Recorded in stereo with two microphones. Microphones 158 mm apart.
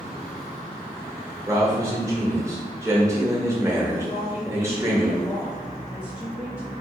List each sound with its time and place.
1.5 s a man speaking: 20° right (ahead or behind), 1.1 m
4.0 s a woman speaking: 20° left (ahead or behind), 1.4 m